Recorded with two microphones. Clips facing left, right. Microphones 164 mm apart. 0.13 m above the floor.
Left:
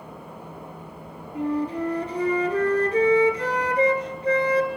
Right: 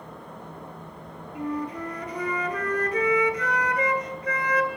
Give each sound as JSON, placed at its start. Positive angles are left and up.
{"t": 1.4, "sound": "a flute", "side_deg": 30, "distance_m": 2.0}